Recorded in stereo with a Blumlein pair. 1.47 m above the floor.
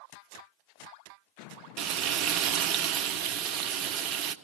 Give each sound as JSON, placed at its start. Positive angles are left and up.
{"t": 1.8, "sound": "frying", "azimuth_deg": -40, "distance_m": 0.9}